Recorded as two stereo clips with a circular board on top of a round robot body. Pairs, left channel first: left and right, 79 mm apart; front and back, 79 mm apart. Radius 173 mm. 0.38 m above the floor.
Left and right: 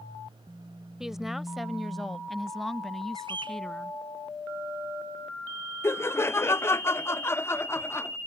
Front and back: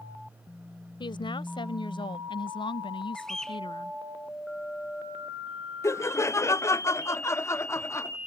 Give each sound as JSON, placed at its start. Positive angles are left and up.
{"t": 1.0, "sound": "a woman speaking", "azimuth_deg": -5}
{"t": 3.1, "sound": "a bird", "azimuth_deg": -85}
{"t": 5.8, "sound": "laughter", "azimuth_deg": 45}